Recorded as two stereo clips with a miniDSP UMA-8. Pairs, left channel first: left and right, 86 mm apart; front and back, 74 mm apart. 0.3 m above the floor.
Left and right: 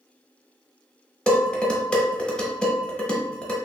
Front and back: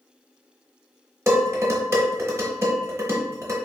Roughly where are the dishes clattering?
Behind.